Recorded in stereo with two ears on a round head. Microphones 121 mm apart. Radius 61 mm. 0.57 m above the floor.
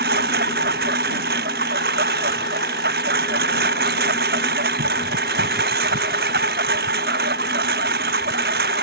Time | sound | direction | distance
0.0 | a lawn mower | 90° right | ?